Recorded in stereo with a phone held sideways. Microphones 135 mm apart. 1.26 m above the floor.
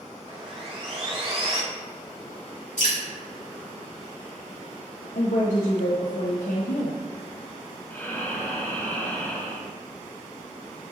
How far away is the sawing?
About 1.2 m.